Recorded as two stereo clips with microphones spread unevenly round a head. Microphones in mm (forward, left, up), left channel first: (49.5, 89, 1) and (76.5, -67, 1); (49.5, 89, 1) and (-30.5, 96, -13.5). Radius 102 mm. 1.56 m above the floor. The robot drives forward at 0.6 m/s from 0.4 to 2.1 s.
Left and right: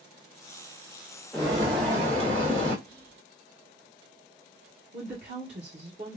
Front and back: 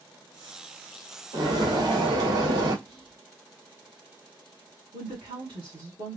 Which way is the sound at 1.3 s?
170° right.